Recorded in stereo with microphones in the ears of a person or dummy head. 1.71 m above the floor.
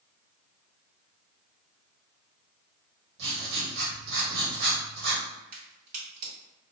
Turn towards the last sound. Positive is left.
turn(degrees=-45)  # may be behind; listen again after turning